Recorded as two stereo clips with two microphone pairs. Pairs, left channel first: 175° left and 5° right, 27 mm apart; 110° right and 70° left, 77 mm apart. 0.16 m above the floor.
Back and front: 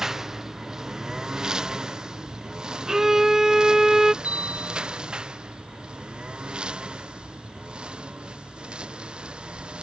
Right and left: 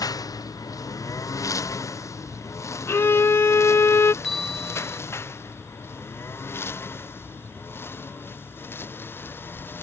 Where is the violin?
65° right.